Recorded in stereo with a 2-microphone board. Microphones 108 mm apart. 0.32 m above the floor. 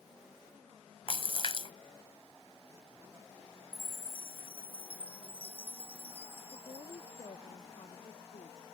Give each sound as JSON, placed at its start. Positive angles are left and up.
{"t": 1.1, "sound": "a splash", "side_deg": 55}
{"t": 3.7, "sound": "a chime", "side_deg": 60}
{"t": 6.5, "sound": "a woman speaking", "side_deg": 55}